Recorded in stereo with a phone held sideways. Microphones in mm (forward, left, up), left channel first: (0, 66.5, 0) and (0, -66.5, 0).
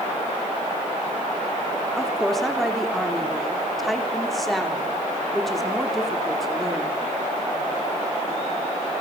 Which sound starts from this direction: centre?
A woman speaking, at 2.0 s.